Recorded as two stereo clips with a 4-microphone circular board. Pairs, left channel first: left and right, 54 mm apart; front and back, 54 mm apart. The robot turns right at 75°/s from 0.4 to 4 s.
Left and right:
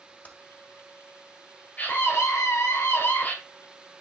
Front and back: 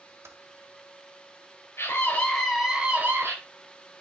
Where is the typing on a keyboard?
145° left, 1.5 m.